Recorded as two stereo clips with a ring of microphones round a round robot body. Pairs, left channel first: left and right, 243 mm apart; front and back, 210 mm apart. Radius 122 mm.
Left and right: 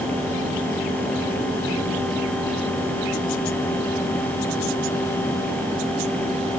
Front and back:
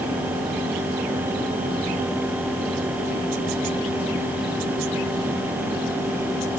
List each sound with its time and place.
Only background noise.